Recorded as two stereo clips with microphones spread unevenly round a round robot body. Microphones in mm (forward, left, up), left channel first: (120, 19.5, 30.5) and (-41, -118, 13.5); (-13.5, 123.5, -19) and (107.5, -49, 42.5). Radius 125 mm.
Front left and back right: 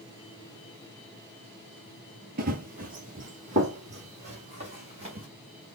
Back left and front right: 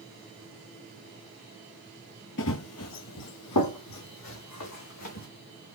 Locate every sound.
2.4 s running footsteps: 170° left, 0.6 m; by 5.3 s 150° left, 2.0 m